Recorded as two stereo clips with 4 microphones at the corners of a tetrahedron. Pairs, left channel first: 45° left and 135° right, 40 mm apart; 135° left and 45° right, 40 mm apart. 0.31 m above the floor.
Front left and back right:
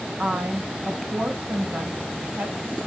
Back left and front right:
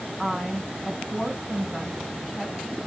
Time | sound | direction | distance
0.2 | a woman speaking | 140° right | 2.5 m